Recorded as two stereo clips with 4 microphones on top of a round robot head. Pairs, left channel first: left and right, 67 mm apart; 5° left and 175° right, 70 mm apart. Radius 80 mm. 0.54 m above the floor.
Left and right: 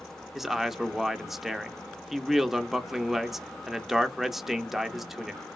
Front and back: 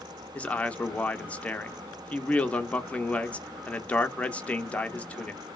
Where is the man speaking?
10° right, 0.7 m.